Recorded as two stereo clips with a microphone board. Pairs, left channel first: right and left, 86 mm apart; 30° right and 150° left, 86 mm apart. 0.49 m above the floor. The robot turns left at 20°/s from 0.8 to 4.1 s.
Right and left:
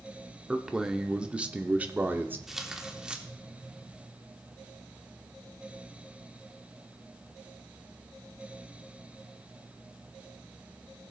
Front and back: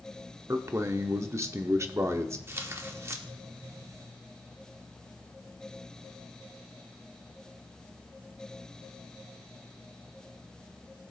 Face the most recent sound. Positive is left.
turn(degrees=140)